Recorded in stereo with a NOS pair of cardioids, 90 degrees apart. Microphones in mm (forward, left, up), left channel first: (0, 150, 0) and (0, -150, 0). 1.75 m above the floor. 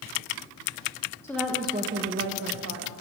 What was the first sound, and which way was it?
A woman speaking, 10° left.